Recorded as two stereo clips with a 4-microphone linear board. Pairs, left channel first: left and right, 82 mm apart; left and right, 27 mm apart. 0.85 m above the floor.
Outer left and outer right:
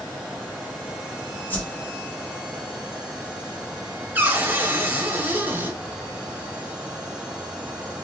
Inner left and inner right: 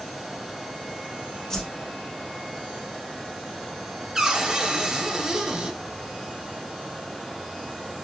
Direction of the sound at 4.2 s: 25° right (ahead or behind).